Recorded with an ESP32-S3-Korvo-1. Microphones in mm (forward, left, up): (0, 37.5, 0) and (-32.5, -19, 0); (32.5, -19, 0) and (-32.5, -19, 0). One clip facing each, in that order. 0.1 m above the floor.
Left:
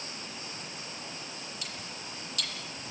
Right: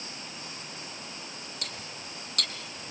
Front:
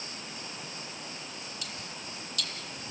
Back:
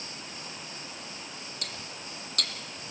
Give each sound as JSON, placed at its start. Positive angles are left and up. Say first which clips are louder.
{"t": 1.6, "sound": "cutlery clinking", "louder": "right 1 dB, even", "azimuth_deg": -150, "distance_m": 2.0}